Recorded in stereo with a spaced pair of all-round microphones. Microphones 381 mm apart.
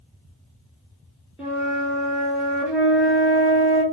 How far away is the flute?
About 1.0 m.